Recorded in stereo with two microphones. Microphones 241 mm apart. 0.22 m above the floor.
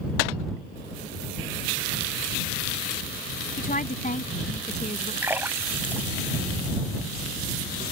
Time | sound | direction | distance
3.6 | a woman speaking | 35° left (ahead or behind) | ?
5.2 | a splash | 10° right (ahead or behind) | ?